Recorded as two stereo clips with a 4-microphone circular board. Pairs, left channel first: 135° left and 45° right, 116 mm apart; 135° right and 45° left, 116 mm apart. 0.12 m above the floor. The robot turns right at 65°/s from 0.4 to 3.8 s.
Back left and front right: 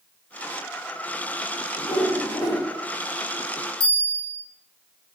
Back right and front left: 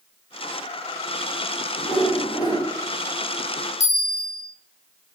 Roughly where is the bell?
Ahead.